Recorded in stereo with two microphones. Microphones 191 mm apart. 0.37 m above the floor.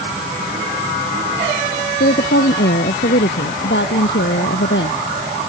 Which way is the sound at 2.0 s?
65° left (ahead or behind).